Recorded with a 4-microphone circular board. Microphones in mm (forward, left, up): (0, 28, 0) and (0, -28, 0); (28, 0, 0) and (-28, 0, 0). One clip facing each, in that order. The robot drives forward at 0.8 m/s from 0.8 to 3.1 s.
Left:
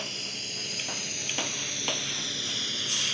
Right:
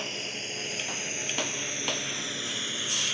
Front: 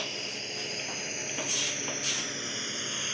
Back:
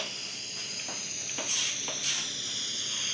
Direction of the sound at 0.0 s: 40° right.